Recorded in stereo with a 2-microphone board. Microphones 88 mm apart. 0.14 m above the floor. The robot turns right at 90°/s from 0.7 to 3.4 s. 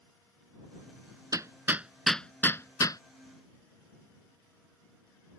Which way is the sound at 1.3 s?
40° right (ahead or behind).